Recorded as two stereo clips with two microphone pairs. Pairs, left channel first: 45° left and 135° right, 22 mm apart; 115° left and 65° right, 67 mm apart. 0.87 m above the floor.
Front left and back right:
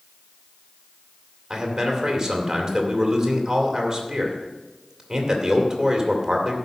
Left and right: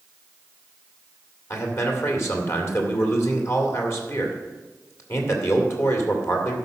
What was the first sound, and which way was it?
A man speaking, 160° left.